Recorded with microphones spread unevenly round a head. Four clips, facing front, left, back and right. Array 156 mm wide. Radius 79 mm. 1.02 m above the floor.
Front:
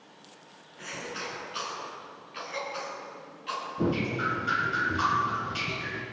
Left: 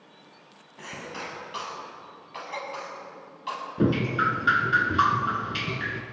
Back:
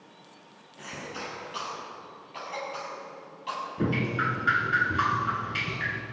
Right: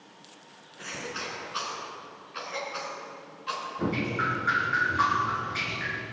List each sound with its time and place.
0.8 s a cough: 125° left, 9.5 m
3.8 s dripping: 95° left, 2 m